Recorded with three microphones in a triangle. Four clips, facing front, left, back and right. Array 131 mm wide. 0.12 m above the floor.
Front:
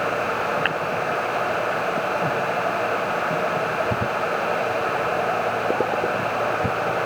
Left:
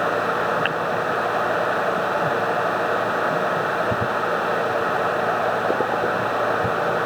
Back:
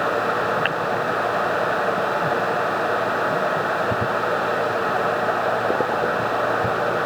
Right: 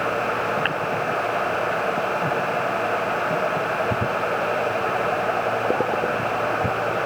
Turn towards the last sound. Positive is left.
No sound to turn to.